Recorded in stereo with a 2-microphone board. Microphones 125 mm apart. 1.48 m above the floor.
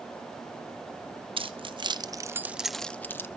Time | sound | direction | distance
1.4 | keys jangling | 45° right (ahead or behind) | 0.9 m